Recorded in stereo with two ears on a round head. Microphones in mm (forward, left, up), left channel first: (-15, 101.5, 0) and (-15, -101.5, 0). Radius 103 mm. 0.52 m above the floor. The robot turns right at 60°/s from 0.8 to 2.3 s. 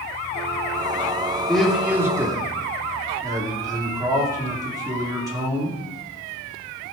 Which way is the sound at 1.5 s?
5° left (ahead or behind).